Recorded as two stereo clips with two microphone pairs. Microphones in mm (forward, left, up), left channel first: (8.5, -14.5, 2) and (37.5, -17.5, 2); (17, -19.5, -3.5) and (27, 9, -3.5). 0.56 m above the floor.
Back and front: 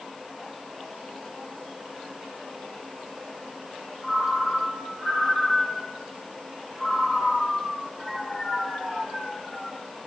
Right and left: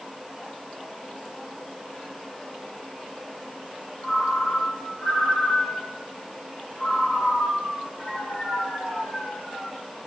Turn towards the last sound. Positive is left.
turn(degrees=-110)